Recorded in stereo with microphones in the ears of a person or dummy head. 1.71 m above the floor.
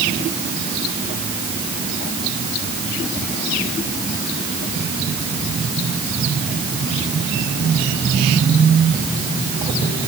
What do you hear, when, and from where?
Only background noise.